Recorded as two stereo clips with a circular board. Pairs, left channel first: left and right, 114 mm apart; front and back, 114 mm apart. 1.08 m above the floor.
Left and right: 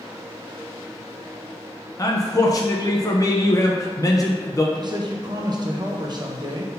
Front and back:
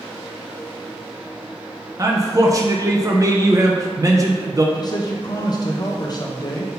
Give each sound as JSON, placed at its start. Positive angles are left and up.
{"t": 2.0, "sound": "a man speaking", "azimuth_deg": 135, "distance_m": 0.8}
{"t": 4.8, "sound": "a man speaking", "azimuth_deg": -45, "distance_m": 0.8}